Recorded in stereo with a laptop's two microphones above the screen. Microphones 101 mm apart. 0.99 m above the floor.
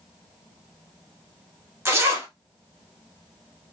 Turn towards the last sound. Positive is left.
turn(degrees=-25)  # may be behind; listen again after turning